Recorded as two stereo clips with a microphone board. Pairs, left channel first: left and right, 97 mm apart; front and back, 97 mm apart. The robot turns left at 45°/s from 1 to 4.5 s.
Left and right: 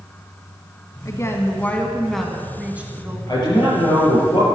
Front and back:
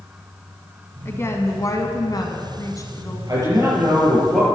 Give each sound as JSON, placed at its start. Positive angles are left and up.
{"t": 1.1, "sound": "a woman speaking", "azimuth_deg": 55, "distance_m": 1.6}
{"t": 3.3, "sound": "a man speaking", "azimuth_deg": 135, "distance_m": 5.0}